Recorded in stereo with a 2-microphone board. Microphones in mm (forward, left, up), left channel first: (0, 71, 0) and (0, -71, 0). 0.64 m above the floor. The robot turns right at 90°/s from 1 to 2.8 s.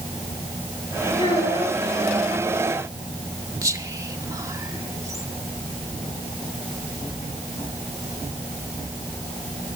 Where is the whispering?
20° right (ahead or behind), 1.6 m.